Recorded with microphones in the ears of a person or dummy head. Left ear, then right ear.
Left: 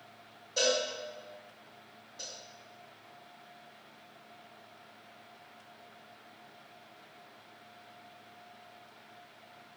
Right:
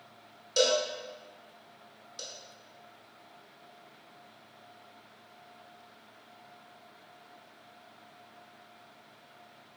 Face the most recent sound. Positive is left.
turn(degrees=-70)  # may be behind; listen again after turning